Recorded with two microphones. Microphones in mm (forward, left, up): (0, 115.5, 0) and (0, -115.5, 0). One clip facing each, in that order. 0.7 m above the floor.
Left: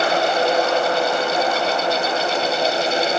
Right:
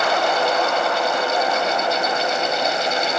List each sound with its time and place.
Only background noise.